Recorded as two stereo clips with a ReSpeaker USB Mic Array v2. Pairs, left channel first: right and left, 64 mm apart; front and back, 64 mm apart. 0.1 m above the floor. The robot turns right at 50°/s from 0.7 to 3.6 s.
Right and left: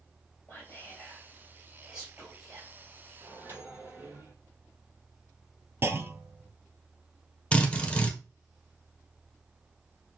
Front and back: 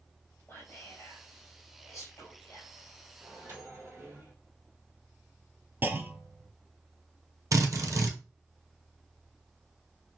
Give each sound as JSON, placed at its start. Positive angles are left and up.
{"t": 0.5, "sound": "whispering", "azimuth_deg": -40, "distance_m": 3.0}
{"t": 3.2, "sound": "a microwave", "azimuth_deg": 120, "distance_m": 2.5}
{"t": 5.8, "sound": "a clunk", "azimuth_deg": 130, "distance_m": 0.6}
{"t": 7.5, "sound": "a drill", "azimuth_deg": -160, "distance_m": 1.4}